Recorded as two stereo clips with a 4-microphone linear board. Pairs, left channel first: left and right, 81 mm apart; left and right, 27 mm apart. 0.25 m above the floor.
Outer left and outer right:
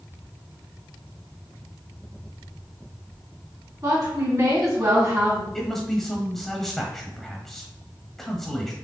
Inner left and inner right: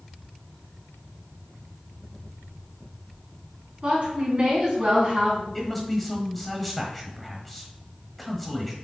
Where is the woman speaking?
55° right (ahead or behind), 2.5 m; by 5.4 s 30° right (ahead or behind), 2.5 m.